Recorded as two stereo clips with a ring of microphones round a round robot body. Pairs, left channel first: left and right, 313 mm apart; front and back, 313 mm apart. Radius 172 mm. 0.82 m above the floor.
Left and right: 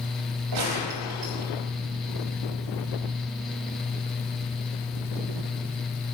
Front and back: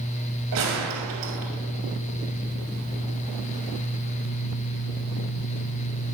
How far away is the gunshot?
About 2.5 m.